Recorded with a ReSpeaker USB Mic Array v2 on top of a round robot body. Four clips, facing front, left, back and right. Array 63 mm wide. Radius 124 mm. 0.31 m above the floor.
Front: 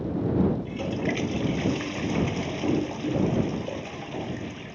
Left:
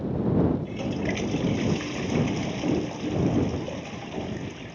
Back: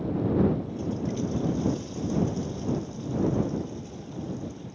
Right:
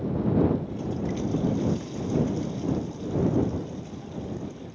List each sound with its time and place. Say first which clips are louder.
0.6 s a toilet flushing: left 2 dB, front 2 dB; 35° left